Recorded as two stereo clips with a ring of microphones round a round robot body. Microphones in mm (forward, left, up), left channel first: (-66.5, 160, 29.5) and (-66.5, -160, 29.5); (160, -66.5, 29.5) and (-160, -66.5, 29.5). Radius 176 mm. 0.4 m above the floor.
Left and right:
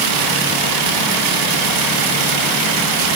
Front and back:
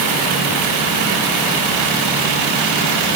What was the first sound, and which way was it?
Only background noise.